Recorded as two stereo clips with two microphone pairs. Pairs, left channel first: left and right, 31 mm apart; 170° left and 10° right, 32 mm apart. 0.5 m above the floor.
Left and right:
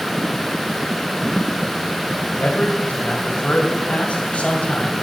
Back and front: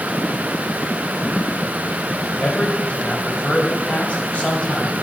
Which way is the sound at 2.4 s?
120° left.